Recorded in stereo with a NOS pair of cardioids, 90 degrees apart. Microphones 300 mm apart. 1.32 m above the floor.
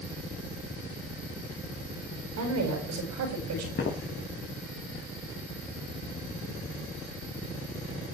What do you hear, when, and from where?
2.4 s a woman speaking: 60° right, 8 m; by 3.7 s 65° right, 8.5 m
3.8 s footsteps: 35° left, 5.5 m